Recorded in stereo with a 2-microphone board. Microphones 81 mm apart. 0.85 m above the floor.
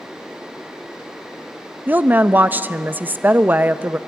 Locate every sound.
1.9 s a woman speaking: 25° right (ahead or behind), 0.6 m